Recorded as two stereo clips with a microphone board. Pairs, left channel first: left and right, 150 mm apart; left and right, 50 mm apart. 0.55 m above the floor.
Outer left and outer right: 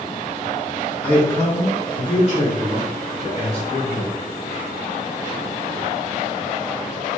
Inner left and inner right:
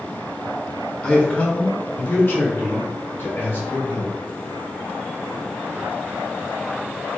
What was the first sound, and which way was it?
A man speaking, 10° left (ahead or behind).